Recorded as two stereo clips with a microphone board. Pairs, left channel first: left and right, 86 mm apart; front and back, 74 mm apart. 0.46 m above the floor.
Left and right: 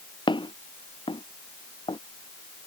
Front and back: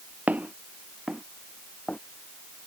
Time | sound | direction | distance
0.3 | footsteps | 110° left | ?